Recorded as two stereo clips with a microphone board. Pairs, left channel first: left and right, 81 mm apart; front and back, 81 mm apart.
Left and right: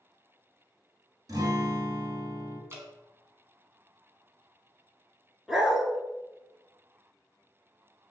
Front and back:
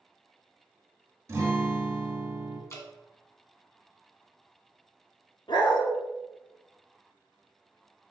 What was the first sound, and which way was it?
A guitar, 130° right.